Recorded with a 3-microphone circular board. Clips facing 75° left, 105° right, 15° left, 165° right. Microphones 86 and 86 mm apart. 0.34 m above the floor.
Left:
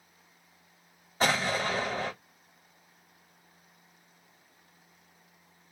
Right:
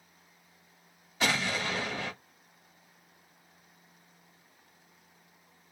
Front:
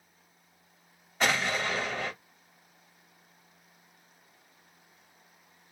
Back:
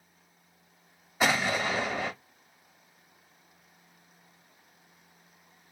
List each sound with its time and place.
1.2 s an explosion: 110° left, 0.9 m